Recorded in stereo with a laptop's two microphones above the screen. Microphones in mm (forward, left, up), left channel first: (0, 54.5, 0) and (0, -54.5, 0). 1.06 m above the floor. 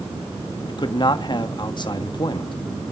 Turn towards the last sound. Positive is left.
turn(degrees=45)  # may be behind; listen again after turning